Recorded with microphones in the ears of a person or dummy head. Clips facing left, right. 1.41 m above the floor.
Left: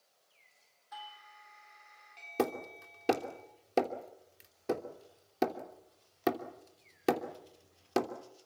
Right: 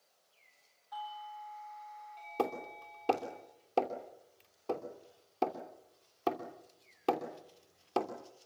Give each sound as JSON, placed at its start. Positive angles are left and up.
{"t": 0.9, "sound": "a doorbell", "side_deg": 25, "distance_m": 4.5}
{"t": 2.4, "sound": "hammering", "side_deg": 25, "distance_m": 3.0}